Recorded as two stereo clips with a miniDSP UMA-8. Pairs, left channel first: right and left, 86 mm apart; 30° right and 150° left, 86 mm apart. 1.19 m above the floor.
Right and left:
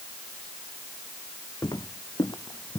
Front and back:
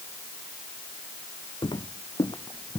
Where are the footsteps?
50° right; by 2.8 s 70° right.